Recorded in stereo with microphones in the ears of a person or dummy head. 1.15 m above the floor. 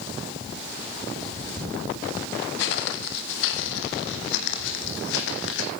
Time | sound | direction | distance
2.6 | footsteps | 60° left (ahead or behind) | 2 m